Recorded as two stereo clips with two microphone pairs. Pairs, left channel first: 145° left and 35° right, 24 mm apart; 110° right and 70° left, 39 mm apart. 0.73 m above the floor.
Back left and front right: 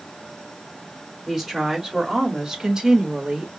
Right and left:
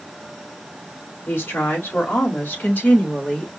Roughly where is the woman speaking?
Behind right.